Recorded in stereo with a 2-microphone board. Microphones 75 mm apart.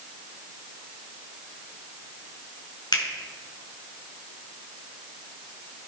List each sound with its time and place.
2.9 s a finger snap: 70° left (ahead or behind), 2.5 m